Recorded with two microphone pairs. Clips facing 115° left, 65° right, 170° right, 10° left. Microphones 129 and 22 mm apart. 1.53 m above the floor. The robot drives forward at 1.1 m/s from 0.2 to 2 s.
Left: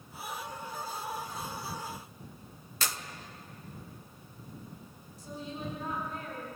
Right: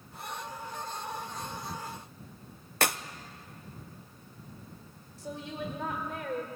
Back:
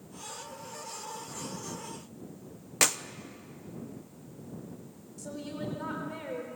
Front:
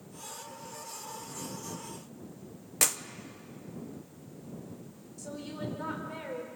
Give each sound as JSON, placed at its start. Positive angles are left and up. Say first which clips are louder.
{"t": 2.8, "sound": "a clap", "louder": "right 8 dB, back 3 dB", "azimuth_deg": -95, "distance_m": 0.8}
{"t": 5.2, "sound": "a woman speaking", "louder": "right 2 dB, back 1 dB", "azimuth_deg": -75, "distance_m": 4.5}